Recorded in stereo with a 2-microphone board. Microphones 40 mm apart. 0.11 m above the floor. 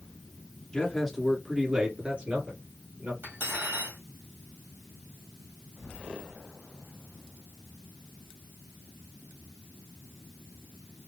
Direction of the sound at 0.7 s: 15° left (ahead or behind).